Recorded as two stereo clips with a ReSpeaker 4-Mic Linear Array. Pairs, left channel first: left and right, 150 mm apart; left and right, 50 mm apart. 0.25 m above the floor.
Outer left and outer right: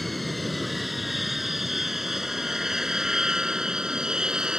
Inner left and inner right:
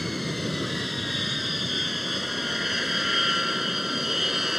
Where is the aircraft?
Centre (ahead or behind); by 4.6 s 5° right (ahead or behind).